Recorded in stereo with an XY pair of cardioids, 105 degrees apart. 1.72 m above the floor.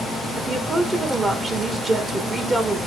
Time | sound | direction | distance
0.4 | a woman speaking | 35° right | 2.5 m